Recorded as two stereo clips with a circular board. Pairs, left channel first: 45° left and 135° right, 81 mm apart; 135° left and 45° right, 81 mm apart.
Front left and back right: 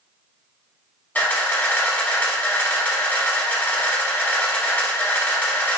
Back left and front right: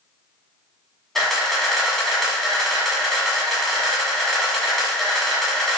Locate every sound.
1.1 s a camera shutter: 55° left, 0.9 m